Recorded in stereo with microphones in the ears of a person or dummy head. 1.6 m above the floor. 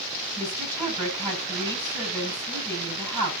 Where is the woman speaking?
30° right (ahead or behind), 7.5 m.